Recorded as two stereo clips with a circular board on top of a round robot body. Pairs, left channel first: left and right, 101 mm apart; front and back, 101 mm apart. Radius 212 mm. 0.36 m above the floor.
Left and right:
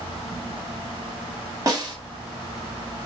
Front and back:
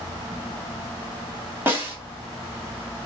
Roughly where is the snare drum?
Behind right.